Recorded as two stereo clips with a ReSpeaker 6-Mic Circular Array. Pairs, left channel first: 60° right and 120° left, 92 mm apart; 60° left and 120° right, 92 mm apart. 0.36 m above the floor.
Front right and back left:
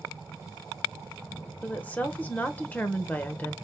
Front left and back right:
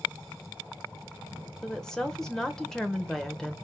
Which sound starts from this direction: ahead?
A woman speaking, at 1.6 s.